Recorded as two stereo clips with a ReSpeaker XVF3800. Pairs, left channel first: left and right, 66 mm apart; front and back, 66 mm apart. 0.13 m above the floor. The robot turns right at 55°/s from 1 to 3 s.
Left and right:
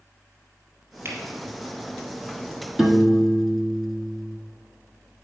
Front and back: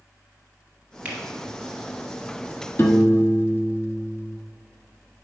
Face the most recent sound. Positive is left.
turn(degrees=5)